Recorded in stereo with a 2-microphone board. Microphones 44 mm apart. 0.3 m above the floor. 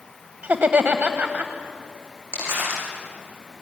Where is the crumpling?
70° right (ahead or behind), 8.5 m.